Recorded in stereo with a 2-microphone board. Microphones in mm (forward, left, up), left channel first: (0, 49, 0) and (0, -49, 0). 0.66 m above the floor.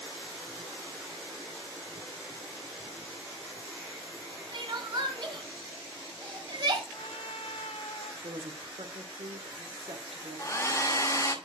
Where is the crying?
55° right (ahead or behind), 1.6 m.